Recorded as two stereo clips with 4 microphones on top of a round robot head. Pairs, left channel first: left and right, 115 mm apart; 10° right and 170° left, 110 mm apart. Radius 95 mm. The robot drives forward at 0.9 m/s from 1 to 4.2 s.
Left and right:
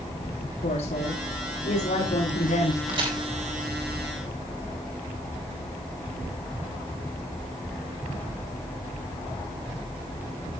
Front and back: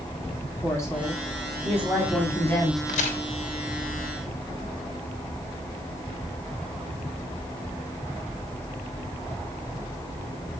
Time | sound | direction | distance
0.6 | a woman speaking | 55° left | 5 m
2.9 | a crack | 30° right | 3 m